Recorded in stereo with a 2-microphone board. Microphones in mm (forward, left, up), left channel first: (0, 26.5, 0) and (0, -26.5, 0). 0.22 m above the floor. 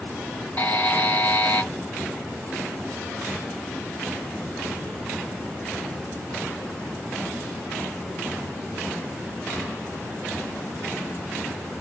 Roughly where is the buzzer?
Left.